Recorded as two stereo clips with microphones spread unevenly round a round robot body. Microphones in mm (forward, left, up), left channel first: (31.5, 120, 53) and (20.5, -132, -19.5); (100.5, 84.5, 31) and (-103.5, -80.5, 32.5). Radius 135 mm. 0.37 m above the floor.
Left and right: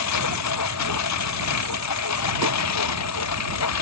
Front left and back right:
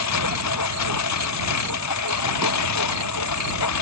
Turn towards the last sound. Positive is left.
turn(degrees=65)